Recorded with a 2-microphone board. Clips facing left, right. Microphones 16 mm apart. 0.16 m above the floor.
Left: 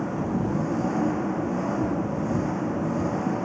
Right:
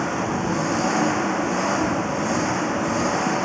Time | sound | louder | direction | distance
0.0 | an engine running | right 3 dB | 70° right (ahead or behind) | ?